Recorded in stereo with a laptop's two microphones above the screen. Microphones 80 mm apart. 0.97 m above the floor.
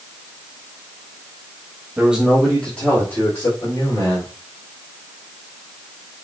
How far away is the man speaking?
About 1.4 m.